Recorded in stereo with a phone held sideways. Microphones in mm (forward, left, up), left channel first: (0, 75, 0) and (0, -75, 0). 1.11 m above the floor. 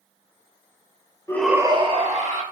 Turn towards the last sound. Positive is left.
turn(degrees=-55)  # may be behind; listen again after turning